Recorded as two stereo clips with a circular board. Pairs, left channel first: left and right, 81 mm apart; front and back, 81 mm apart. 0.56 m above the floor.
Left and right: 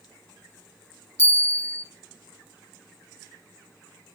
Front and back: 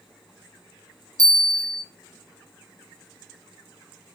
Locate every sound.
1.2 s a bell: 145° left, 2 m